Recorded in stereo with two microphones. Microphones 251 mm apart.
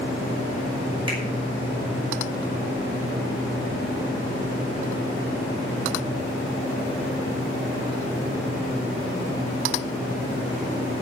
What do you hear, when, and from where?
1.1 s a finger snap: 20° right (ahead or behind), 5.5 m